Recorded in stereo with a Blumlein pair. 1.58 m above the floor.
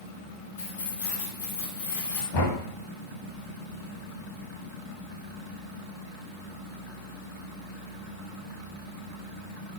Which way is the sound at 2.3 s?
60° left.